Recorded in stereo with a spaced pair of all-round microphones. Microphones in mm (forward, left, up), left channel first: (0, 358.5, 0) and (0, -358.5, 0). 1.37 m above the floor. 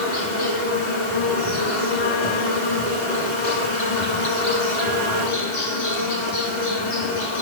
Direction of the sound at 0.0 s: 75° left (ahead or behind).